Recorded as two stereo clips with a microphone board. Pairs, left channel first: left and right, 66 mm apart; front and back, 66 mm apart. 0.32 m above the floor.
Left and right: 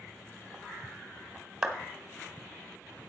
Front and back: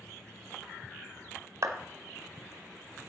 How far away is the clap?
About 1.4 m.